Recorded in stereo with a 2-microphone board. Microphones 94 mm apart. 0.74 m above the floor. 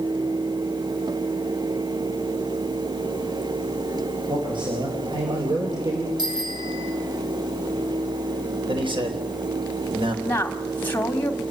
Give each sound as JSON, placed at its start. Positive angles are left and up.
{"t": 4.3, "sound": "a man speaking", "side_deg": -60, "distance_m": 5.5}
{"t": 6.2, "sound": "a bicycle bell", "side_deg": -50, "distance_m": 7.0}
{"t": 8.7, "sound": "a man speaking", "side_deg": -65, "distance_m": 3.5}
{"t": 10.2, "sound": "a woman speaking", "side_deg": 20, "distance_m": 1.5}